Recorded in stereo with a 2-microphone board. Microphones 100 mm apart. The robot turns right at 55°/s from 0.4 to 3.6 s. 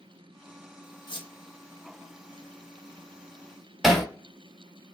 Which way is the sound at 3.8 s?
5° right (ahead or behind).